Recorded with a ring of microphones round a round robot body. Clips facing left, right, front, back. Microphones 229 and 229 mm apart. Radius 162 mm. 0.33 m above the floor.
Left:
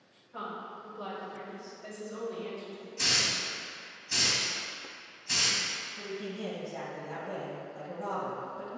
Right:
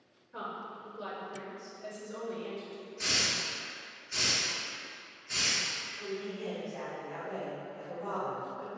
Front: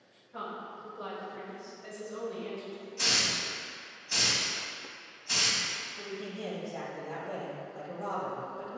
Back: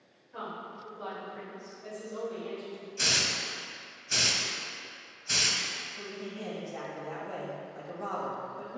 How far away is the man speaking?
About 1.5 m.